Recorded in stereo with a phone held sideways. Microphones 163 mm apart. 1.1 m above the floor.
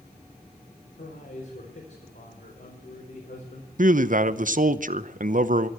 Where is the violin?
I don't hear a violin.